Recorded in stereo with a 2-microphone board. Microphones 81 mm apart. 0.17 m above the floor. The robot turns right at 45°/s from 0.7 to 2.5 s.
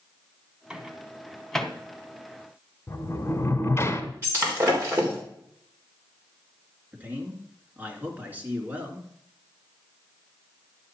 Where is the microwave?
10° right (ahead or behind), 0.8 m; by 1.7 s 10° left (ahead or behind), 0.8 m.